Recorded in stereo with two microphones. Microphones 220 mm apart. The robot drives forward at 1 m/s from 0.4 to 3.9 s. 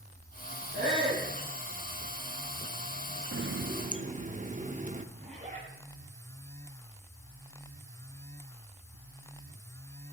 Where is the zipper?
35° right (ahead or behind), 6.5 m.